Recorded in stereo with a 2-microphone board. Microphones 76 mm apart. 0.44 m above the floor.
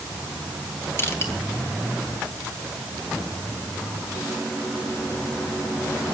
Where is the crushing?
35° left (ahead or behind), 4.5 m.